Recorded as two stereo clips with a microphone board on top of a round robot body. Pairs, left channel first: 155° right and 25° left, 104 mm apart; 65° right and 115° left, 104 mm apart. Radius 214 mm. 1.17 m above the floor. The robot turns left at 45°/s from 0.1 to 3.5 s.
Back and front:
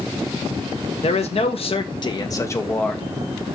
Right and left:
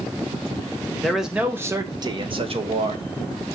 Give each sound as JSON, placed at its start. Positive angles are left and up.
{"t": 1.0, "sound": "a man speaking", "azimuth_deg": -155, "distance_m": 1.4}